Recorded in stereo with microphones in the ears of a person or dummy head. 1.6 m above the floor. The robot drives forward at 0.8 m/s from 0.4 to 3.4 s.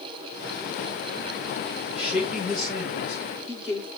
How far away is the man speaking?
About 5.5 m.